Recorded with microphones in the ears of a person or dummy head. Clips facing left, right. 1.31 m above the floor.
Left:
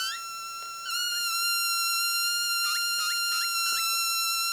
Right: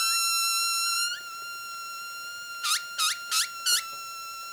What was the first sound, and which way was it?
Only background noise.